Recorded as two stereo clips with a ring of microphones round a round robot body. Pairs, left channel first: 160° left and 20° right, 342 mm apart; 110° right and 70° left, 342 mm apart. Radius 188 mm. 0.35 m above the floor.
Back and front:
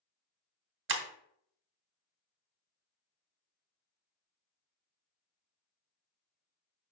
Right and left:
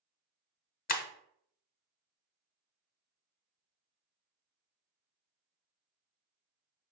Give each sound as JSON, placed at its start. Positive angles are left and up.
{"t": 0.9, "sound": "breaking glass", "azimuth_deg": -60, "distance_m": 0.8}